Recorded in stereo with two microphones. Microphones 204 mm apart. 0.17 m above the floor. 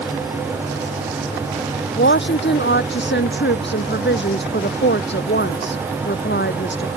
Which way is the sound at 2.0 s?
60° left (ahead or behind).